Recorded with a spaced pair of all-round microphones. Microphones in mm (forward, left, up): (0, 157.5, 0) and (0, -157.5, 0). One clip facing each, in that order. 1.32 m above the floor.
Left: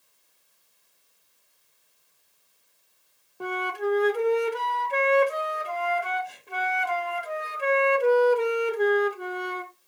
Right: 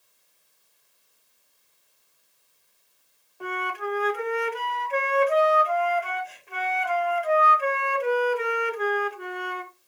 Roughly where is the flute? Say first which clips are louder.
Left 4 dB; left.